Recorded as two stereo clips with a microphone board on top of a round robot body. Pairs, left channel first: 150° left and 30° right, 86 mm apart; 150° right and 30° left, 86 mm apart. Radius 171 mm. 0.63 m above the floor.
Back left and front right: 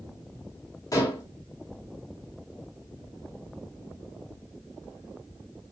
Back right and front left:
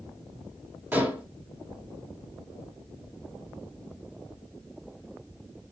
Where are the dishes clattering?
100° left, 3.5 m.